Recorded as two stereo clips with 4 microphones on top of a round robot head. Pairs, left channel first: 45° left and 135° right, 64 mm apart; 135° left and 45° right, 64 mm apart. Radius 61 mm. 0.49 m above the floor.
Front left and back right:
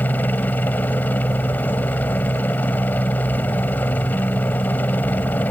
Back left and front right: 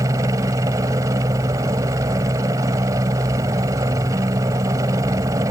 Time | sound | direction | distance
0.0 | a helicopter | 15° right | ?